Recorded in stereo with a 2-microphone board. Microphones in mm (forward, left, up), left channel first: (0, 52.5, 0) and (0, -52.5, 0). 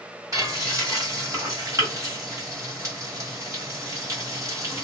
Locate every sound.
0.3 s frying: 30° right (ahead or behind), 1.8 m